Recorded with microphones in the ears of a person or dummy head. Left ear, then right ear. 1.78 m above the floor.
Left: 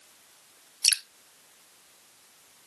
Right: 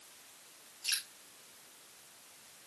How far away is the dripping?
About 0.5 m.